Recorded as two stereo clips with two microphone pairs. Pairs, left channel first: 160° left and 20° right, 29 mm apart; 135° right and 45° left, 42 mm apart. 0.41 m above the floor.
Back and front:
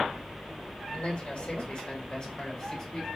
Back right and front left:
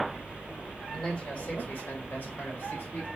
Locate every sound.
0.9 s a man speaking: 165° left, 1.5 m; by 3.1 s 130° right, 2 m